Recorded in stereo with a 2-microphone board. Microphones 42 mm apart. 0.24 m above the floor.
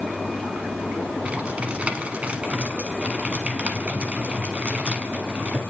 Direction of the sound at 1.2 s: 30° right (ahead or behind).